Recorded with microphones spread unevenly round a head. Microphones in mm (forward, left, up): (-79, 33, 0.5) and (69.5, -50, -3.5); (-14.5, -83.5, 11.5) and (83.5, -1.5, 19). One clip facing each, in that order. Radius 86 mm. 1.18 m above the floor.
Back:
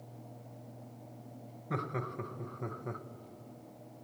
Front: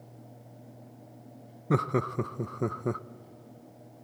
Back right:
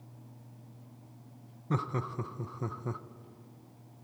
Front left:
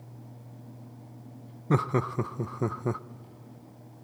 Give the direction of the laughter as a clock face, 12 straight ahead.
12 o'clock.